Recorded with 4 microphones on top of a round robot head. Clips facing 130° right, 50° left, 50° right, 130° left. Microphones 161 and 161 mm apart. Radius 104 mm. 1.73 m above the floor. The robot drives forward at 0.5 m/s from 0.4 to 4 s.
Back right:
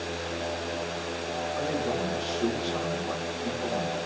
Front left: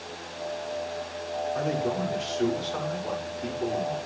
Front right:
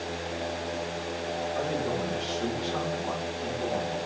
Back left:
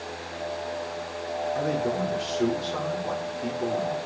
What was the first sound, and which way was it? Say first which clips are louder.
A man speaking: front left 1 dB, back left 4 dB; 85° left.